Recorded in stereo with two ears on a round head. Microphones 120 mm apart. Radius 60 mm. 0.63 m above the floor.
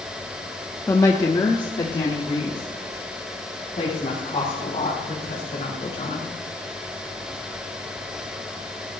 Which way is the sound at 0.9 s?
20° left (ahead or behind).